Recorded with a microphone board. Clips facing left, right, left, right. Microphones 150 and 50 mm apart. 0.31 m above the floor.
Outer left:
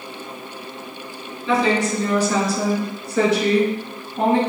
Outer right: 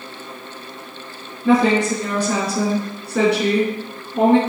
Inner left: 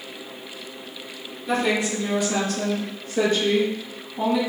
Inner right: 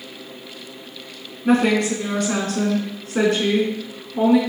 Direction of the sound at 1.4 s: 55° right (ahead or behind).